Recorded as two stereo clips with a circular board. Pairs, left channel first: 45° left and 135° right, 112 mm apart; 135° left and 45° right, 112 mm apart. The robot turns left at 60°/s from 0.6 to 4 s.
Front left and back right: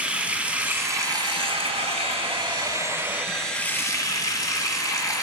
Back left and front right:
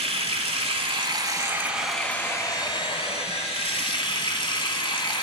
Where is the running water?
55° right, 1.3 m; by 5.2 s 100° left, 1.3 m.